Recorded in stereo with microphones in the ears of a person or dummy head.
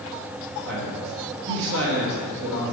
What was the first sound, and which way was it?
A man speaking, 60° right (ahead or behind).